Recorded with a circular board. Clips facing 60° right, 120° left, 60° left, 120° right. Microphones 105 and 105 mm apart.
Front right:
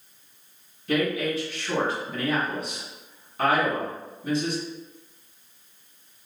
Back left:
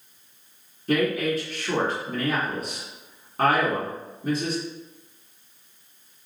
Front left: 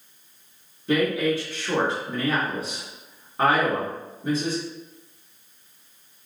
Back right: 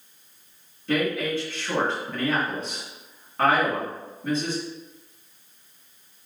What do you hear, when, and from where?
0.9 s a woman speaking: 135° left, 1.5 m